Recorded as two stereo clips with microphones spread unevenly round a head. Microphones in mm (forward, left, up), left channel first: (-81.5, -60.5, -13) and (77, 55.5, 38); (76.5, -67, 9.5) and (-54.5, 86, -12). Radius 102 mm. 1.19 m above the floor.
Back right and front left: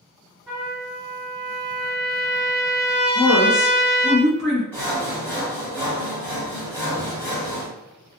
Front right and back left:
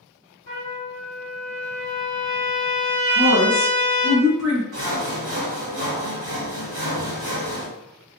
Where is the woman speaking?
125° left, 1.0 m.